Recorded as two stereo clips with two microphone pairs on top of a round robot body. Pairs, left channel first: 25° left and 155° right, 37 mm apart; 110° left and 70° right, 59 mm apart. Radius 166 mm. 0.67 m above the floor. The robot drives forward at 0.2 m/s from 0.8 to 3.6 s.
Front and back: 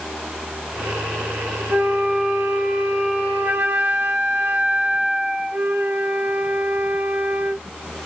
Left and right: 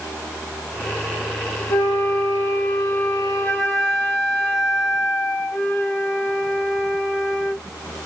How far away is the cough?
I don't hear a cough.